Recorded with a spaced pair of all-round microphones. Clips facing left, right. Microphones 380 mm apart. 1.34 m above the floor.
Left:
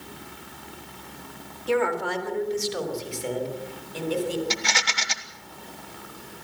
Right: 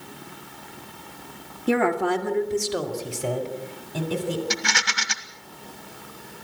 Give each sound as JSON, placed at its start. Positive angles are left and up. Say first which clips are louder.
{"t": 1.7, "sound": "a woman speaking", "louder": "right 3 dB", "side_deg": -65, "distance_m": 2.0}
{"t": 4.5, "sound": "a rattle", "louder": "right 1 dB", "side_deg": -20, "distance_m": 1.5}